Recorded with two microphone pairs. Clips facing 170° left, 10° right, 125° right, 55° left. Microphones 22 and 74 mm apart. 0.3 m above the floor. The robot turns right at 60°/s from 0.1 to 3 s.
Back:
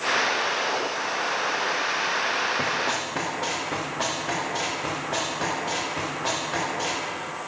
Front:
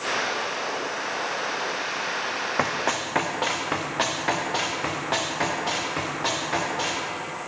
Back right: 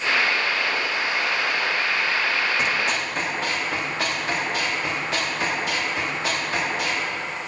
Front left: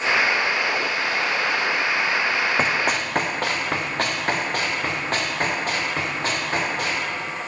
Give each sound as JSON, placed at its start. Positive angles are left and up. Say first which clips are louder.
{"t": 2.6, "sound": "running footsteps", "louder": "even, front left 2 dB", "azimuth_deg": 5, "distance_m": 1.0}